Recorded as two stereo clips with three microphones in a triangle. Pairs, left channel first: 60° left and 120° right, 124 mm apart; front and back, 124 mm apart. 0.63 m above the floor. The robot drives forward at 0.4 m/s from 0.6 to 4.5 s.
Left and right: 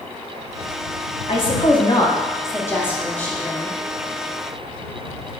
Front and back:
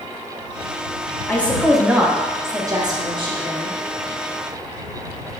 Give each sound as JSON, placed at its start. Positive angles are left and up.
{"t": 1.3, "sound": "a woman speaking", "azimuth_deg": 75, "distance_m": 0.8}